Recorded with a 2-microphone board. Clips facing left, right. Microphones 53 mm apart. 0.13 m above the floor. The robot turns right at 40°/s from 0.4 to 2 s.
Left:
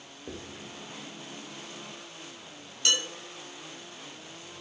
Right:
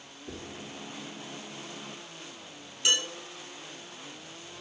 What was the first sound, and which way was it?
Writing, 50° left (ahead or behind).